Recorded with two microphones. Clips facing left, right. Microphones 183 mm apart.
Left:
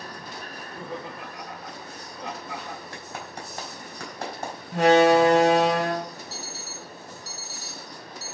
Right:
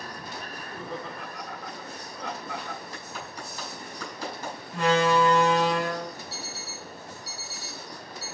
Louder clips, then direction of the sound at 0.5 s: Left 2 dB; 15° left (ahead or behind).